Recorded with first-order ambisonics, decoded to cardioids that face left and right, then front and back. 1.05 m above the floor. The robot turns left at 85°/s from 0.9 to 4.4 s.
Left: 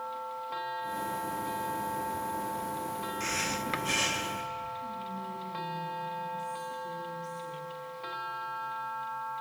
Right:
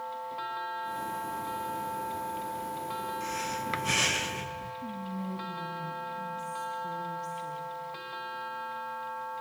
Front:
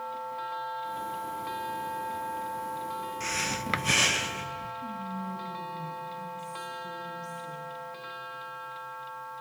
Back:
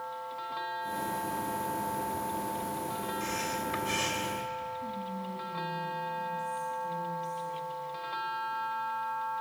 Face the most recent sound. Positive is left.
turn(degrees=-80)